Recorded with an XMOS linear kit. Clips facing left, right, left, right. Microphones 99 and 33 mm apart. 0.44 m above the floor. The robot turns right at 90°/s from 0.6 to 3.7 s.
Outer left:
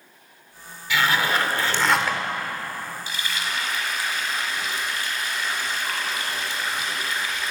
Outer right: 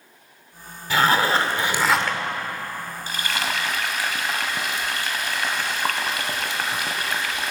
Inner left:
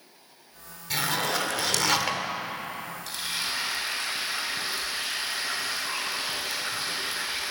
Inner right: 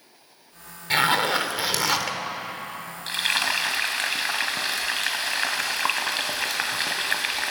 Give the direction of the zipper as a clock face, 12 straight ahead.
3 o'clock.